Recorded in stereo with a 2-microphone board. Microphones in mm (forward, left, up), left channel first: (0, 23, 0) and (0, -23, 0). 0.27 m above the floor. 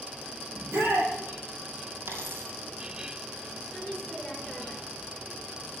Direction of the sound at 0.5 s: 60° right (ahead or behind).